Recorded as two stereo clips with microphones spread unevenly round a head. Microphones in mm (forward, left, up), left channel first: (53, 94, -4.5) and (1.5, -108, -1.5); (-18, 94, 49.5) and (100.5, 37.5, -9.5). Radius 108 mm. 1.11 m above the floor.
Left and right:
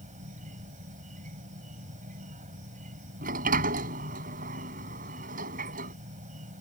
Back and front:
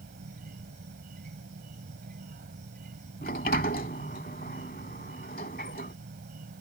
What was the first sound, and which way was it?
An insect, 50° right.